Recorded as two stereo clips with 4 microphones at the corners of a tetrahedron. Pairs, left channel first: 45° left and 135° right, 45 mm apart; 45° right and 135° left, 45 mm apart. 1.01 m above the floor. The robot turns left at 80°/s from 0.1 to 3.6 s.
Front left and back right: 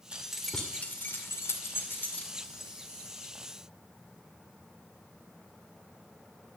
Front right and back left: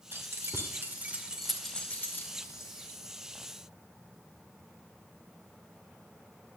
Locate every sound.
0.1 s keys jangling: 160° left, 2 m; by 2.7 s 50° right, 2 m